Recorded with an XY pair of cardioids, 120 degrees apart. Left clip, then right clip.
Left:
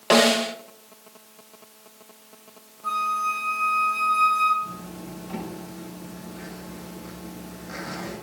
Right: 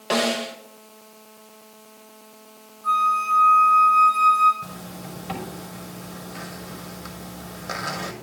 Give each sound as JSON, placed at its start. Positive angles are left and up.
{"t": 0.1, "sound": "a snare drum", "azimuth_deg": 30, "distance_m": 1.5}
{"t": 2.8, "sound": "a flute", "azimuth_deg": 5, "distance_m": 6.5}
{"t": 4.6, "sound": "a zipper", "azimuth_deg": -70, "distance_m": 5.5}